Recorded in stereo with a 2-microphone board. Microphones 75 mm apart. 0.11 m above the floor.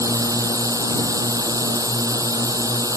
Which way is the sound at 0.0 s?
50° right (ahead or behind).